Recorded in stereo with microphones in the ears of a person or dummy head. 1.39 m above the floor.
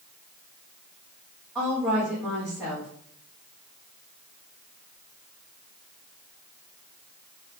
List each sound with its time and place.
1.6 s a woman speaking: 5° right (ahead or behind), 2.0 m